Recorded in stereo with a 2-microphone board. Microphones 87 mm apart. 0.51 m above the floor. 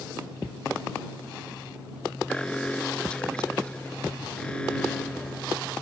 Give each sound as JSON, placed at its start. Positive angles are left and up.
{"t": 2.3, "sound": "an alarm", "side_deg": 10}